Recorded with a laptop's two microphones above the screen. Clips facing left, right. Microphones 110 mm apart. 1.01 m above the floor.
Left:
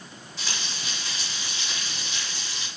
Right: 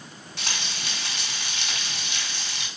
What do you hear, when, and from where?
0.4 s frying: 80° right, 3.5 m